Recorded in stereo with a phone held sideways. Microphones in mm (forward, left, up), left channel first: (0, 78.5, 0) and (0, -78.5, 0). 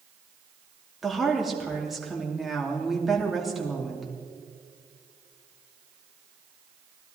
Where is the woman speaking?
Centre (ahead or behind), 2.5 m.